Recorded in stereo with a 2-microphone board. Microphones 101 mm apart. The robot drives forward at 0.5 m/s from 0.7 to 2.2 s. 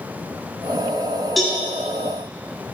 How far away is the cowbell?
About 2 m.